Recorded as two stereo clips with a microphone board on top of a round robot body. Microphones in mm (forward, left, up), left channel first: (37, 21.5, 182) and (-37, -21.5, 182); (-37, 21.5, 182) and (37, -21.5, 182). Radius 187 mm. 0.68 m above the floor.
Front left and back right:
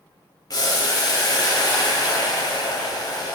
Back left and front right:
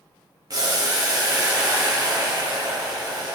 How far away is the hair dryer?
I don't hear a hair dryer.